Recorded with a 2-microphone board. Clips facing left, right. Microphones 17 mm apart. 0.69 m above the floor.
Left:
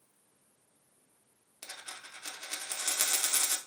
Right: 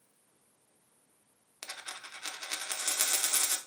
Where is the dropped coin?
35° right (ahead or behind), 0.6 m.